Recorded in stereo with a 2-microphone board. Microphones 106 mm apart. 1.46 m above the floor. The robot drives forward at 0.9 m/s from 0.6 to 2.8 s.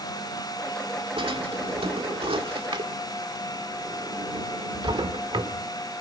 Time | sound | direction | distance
1.2 | a drawer | 55° right (ahead or behind) | 1.8 m